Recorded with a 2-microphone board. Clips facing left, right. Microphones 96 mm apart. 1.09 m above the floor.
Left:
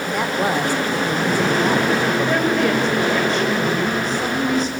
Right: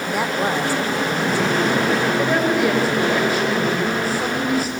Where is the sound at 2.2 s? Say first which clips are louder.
Even; 5° right (ahead or behind), 4.5 m.